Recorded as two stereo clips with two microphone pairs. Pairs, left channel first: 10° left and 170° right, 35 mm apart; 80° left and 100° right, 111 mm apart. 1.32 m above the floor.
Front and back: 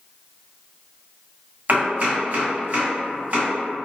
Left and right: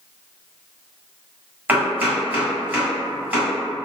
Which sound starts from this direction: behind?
Chopping, at 1.7 s.